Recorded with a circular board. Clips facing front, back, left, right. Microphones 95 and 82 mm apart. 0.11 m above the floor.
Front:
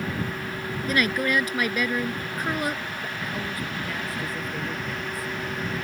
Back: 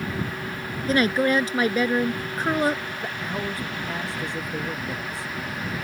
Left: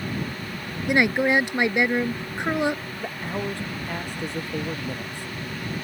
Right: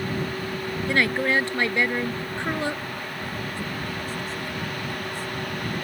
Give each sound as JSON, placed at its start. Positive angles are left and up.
{"t": 0.9, "sound": "a woman speaking", "azimuth_deg": 150}
{"t": 3.0, "sound": "a man speaking", "azimuth_deg": 120}